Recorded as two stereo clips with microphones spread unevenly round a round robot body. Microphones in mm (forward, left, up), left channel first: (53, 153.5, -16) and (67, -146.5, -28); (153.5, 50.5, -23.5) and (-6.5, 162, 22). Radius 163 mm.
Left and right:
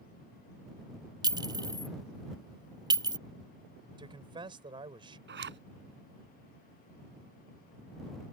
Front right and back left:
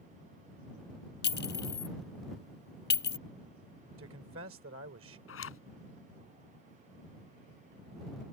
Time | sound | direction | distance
1.2 | a clink | 10° right | ?
4.0 | a man speaking | 165° right | ?
5.3 | a zipper | 35° right | ?